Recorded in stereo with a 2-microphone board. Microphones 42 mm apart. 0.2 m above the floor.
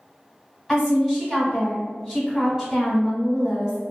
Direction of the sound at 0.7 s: 10° right (ahead or behind).